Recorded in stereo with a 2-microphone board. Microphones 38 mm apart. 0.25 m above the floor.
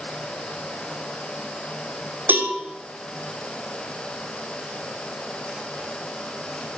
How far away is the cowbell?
About 6.5 m.